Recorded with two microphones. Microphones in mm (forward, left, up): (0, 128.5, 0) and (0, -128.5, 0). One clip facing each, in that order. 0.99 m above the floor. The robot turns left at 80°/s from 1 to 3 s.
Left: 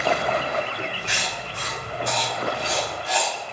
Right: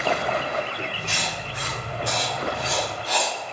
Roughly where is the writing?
Centre.